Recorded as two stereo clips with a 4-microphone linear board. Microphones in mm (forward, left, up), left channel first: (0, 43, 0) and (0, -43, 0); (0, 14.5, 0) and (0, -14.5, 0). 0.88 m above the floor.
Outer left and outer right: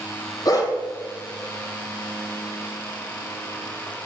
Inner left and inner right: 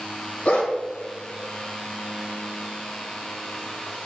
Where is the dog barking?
45° left (ahead or behind), 1.7 m.